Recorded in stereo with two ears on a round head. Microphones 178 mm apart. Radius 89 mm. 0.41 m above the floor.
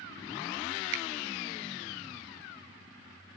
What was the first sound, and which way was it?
A finger snap, 60° right (ahead or behind).